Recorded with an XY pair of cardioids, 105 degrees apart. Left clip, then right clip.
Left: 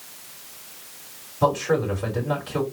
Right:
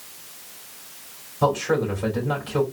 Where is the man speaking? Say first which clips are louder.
Even; 5° right, 3 m.